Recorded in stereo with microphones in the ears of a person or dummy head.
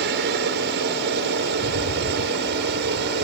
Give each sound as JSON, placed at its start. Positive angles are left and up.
{"t": 0.0, "sound": "a helicopter", "side_deg": -60}
{"t": 1.5, "sound": "a rattle", "side_deg": -65}